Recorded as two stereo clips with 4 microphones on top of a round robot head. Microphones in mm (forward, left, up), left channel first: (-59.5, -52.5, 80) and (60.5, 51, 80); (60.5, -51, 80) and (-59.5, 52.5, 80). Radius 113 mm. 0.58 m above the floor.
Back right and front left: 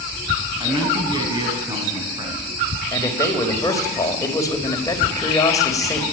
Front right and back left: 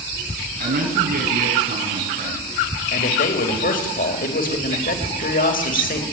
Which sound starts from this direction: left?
A man speaking, at 0.6 s.